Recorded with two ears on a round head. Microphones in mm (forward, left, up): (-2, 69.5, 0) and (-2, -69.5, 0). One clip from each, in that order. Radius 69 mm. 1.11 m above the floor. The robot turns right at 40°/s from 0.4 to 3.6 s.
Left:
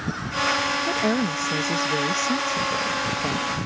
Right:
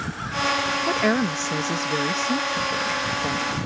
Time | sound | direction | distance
0.9 | a woman speaking | 35° right (ahead or behind) | ?